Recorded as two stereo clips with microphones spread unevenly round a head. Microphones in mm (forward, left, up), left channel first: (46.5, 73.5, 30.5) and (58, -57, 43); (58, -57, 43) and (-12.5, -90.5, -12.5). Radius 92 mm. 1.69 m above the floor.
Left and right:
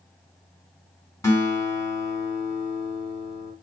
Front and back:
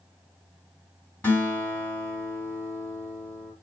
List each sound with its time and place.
1.2 s a guitar: 25° left, 2 m